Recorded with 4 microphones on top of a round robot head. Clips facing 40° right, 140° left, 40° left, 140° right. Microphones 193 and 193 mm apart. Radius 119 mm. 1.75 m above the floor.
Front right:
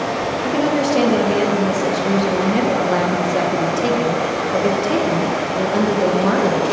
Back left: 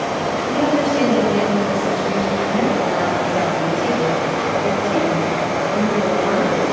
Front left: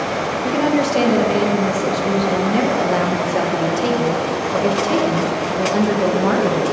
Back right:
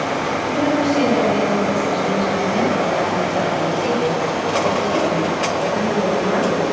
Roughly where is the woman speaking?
Ahead.